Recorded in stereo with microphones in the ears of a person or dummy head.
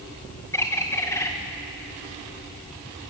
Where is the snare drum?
I don't hear a snare drum.